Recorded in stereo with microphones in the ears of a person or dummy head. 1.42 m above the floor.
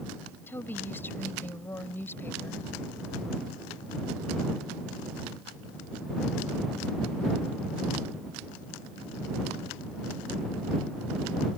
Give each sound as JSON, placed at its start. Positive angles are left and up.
{"t": 0.5, "sound": "a woman speaking", "side_deg": 15}